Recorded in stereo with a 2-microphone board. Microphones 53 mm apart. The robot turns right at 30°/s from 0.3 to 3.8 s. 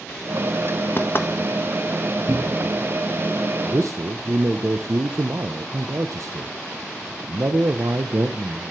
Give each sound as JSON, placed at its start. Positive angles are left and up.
{"t": 1.0, "sound": "knocking", "side_deg": 45, "distance_m": 1.0}
{"t": 2.3, "sound": "a cupboard door", "side_deg": -60, "distance_m": 1.4}
{"t": 3.7, "sound": "a man speaking", "side_deg": -65, "distance_m": 0.9}